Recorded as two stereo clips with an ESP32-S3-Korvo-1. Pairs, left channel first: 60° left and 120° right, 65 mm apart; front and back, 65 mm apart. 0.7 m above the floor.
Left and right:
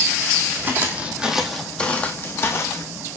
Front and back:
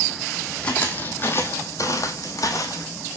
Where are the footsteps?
70° right, 1.2 m; by 2.9 s 30° left, 1.4 m.